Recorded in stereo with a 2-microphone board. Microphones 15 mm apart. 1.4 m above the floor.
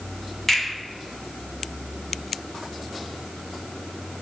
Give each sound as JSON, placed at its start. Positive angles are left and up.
{"t": 0.5, "sound": "a finger snap", "side_deg": 15, "distance_m": 1.7}